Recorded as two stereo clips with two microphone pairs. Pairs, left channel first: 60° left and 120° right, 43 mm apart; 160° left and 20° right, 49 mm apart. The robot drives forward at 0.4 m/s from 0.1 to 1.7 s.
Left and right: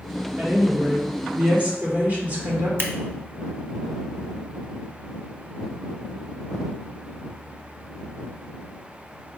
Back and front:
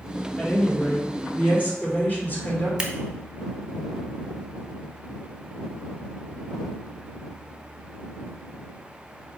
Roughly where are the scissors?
Right.